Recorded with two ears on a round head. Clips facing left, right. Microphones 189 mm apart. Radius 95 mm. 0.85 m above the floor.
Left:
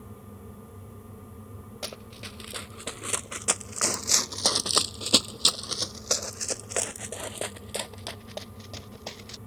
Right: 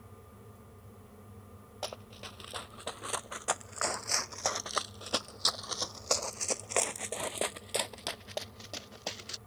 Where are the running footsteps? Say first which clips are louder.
Even; 25° left (ahead or behind); by 9.4 s 5° right (ahead or behind).